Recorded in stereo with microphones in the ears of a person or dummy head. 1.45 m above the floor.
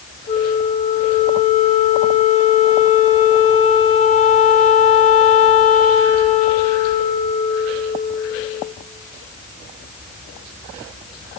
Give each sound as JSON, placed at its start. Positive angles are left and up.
{"t": 0.3, "sound": "a flute", "side_deg": 35, "distance_m": 0.8}